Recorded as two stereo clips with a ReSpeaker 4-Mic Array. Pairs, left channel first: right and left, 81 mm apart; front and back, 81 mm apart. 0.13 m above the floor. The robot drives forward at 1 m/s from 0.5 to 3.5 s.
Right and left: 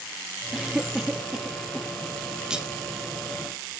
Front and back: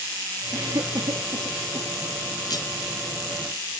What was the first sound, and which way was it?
A cough, 175° left.